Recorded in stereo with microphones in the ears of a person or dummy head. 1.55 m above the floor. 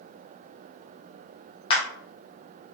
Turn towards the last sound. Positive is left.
turn(degrees=30)  # may be behind; listen again after turning